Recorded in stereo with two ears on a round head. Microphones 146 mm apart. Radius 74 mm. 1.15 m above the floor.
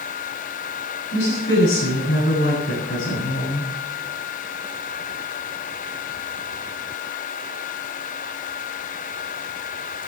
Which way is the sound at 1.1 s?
80° left.